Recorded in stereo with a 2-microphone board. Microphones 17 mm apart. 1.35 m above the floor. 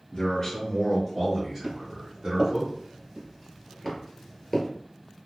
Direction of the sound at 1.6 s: 40° right (ahead or behind).